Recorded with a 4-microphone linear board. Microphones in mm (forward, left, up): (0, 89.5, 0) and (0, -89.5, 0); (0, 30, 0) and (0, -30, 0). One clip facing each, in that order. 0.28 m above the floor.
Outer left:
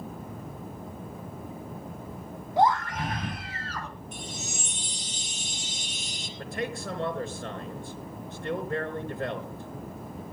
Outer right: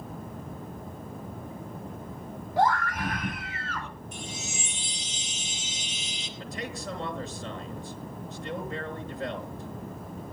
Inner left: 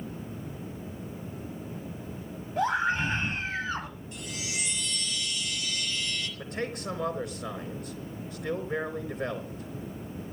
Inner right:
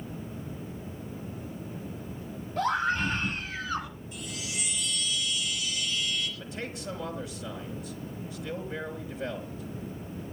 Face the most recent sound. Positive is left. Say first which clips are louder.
# outer left 4 dB, inner left 3 dB
turn(degrees=60)  # may be behind; listen again after turning